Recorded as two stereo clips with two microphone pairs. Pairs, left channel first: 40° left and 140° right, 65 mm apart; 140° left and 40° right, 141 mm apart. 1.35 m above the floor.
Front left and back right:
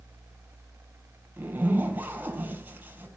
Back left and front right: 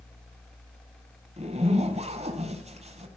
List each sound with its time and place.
1.4 s a zipper: 85° right, 4 m